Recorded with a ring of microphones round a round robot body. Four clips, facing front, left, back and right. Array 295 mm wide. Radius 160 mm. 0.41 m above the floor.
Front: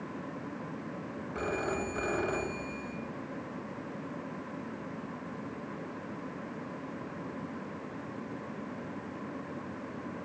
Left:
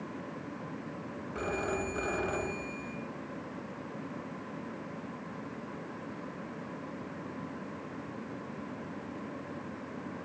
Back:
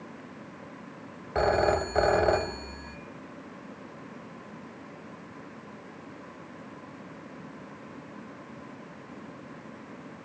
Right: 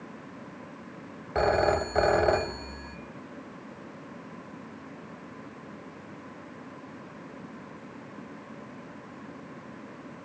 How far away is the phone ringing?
About 2 m.